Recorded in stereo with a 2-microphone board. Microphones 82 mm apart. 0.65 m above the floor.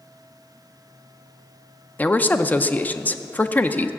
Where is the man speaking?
20° left (ahead or behind), 0.5 m.